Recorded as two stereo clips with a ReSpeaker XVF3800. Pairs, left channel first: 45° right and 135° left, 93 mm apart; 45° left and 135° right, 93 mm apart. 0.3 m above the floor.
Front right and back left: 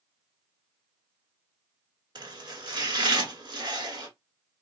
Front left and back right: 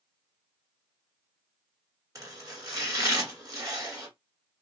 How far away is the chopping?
About 1.5 m.